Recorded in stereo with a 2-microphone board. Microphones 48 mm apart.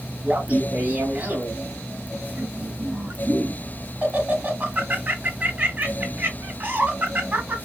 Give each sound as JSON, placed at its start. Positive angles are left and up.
{"t": 0.2, "sound": "laughter", "side_deg": -30, "distance_m": 1.0}